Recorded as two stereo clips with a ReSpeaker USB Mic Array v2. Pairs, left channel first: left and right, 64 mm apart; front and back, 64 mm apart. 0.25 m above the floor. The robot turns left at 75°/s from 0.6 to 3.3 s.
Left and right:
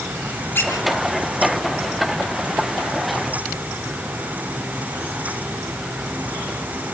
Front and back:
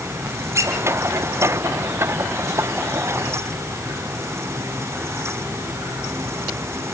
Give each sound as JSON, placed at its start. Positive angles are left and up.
{"t": 0.6, "sound": "a squeak", "azimuth_deg": 145, "distance_m": 5.5}